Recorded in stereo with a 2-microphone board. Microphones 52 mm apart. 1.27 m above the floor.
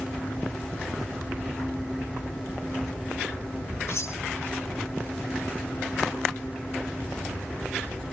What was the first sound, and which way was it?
Cutlery clinking, 60° left (ahead or behind).